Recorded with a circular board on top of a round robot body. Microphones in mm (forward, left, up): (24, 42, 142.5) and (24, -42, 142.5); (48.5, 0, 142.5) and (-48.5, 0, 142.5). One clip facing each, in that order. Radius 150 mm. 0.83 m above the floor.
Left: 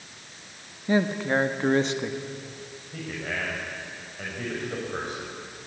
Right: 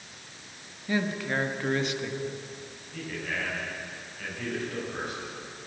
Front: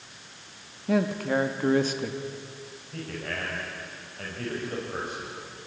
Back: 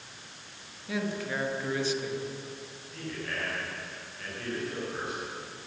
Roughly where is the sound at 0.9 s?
Ahead left.